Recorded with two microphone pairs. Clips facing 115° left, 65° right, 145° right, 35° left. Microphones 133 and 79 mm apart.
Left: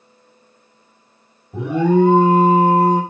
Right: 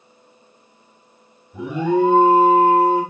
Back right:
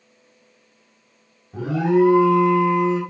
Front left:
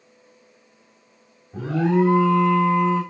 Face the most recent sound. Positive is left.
turn(degrees=140)